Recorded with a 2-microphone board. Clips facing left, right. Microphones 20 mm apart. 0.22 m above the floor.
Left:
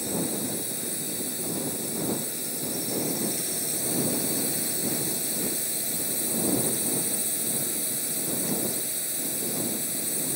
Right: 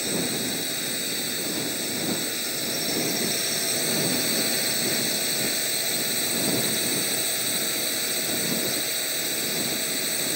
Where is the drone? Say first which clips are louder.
Right 3 dB; 40° right (ahead or behind).